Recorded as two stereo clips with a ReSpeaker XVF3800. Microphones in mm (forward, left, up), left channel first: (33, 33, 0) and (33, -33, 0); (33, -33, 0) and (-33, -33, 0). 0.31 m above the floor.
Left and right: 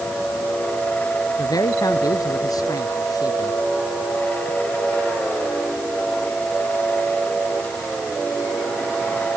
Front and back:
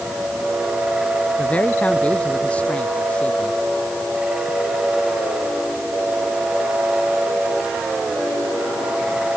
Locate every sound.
1.4 s a man speaking: 70° left; by 3.6 s 75° left